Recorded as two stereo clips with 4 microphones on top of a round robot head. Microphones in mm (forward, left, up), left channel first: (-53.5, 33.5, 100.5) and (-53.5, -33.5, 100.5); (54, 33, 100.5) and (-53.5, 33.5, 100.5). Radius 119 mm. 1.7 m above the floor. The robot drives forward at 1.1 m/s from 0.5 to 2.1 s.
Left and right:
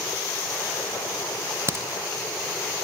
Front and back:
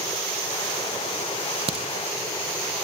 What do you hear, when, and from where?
1.7 s a crack: 140° right, 2 m; by 1.9 s 145° right, 2 m